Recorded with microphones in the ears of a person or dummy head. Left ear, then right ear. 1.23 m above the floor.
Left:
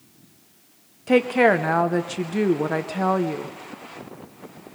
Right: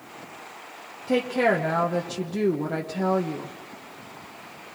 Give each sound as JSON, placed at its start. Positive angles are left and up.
{"t": 1.1, "sound": "a woman speaking", "side_deg": 25, "distance_m": 1.0}